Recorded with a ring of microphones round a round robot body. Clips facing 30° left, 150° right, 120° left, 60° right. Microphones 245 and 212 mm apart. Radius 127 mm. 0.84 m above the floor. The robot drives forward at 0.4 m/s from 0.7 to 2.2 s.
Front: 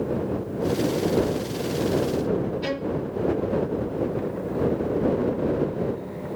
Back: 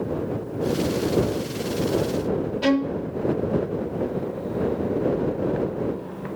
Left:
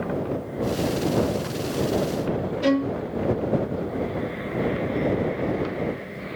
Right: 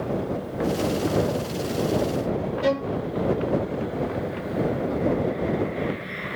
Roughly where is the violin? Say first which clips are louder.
Back 6 dB, left 4 dB; behind.